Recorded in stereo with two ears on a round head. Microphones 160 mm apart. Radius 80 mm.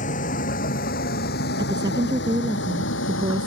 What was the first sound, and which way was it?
A vehicle, 45° left (ahead or behind).